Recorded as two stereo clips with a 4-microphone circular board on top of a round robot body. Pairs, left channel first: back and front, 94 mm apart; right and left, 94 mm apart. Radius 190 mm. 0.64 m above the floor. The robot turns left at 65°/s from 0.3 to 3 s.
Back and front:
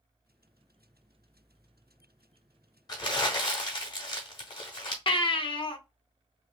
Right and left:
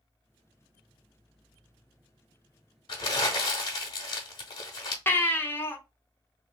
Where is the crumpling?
130° right, 0.9 m; by 5.0 s 140° right, 0.9 m.